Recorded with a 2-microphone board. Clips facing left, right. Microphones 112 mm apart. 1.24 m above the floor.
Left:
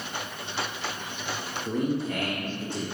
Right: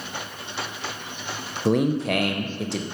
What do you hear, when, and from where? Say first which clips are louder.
1.6 s a man speaking: right 7 dB; 90° right, 0.6 m